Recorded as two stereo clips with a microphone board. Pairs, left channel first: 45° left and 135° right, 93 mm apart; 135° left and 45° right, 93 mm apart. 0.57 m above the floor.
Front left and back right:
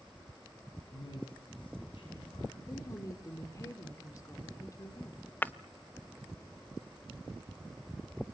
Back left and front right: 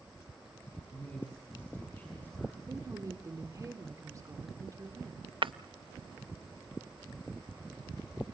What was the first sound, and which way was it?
A man speaking, 65° left.